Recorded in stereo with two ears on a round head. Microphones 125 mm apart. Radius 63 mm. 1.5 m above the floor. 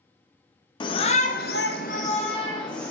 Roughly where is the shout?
Left.